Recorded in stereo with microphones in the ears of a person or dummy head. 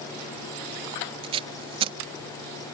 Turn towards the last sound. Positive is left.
turn(degrees=-30)  # may be behind; listen again after turning